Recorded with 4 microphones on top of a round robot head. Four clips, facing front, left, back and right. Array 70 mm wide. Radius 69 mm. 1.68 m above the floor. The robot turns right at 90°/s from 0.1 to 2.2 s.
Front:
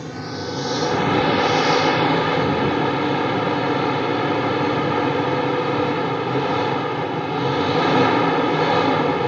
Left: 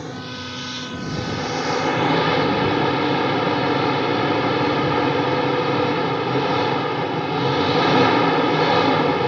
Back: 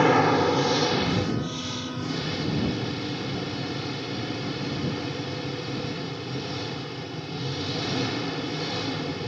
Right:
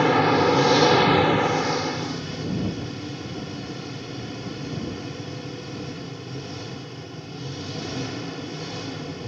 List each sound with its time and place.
0.0 s an engine running: 140° right; by 9.3 s 50° left